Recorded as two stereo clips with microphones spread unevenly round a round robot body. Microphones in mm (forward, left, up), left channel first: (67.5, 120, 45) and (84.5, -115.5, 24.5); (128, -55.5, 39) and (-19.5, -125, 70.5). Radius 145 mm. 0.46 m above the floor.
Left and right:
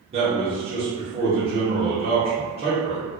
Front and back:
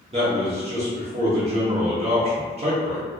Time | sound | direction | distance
0.1 | a man speaking | 115° right | 1.1 m